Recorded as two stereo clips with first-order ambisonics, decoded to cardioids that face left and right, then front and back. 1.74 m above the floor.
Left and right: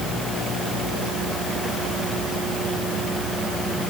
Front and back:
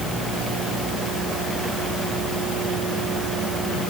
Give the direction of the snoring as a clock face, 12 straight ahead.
I don't hear snoring.